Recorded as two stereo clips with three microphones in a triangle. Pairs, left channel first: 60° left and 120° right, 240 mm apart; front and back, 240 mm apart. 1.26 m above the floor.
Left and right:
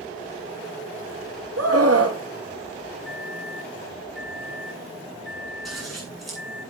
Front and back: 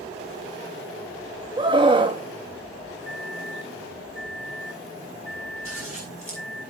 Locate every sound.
1.6 s a scream: 110° right, 2.5 m
3.0 s a microwave: 25° left, 2 m
5.7 s scissors: 30° right, 9.5 m